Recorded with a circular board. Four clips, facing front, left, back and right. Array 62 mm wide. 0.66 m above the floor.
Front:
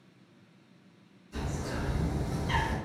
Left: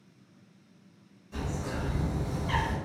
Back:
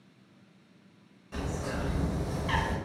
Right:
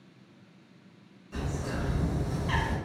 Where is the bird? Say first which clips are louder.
Right 1 dB, back 2 dB; 170° right, 0.9 m.